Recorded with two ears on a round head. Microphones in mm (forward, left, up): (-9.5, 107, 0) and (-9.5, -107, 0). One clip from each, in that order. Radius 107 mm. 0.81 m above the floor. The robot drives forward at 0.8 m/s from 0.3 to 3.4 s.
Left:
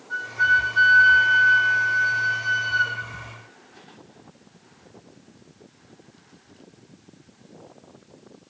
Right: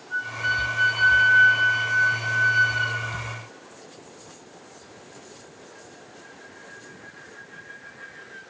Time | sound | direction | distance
0.1 | a flute | 55° left (ahead or behind) | 2 m